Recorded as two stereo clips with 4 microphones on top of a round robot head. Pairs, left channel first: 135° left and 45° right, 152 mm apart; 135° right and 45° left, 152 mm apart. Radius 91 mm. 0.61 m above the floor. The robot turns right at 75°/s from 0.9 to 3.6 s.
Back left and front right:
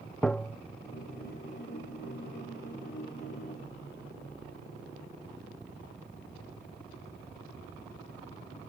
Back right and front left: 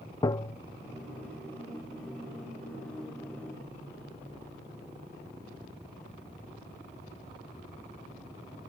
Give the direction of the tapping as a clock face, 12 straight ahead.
5 o'clock.